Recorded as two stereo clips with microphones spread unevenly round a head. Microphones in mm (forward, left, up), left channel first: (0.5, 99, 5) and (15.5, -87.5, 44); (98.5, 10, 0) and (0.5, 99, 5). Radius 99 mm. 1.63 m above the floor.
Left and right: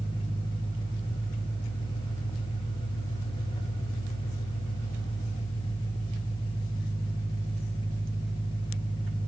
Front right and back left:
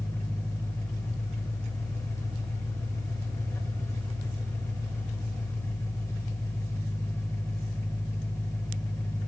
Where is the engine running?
30° left, 3 m.